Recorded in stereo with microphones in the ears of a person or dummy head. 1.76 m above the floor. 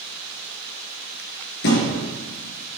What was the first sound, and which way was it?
A thud, 55° left (ahead or behind).